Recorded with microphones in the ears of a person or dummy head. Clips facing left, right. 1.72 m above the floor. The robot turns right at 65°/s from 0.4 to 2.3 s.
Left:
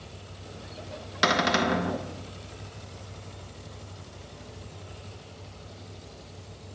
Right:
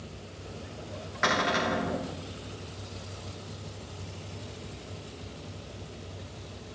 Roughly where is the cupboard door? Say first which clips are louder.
Left 3 dB; ahead left.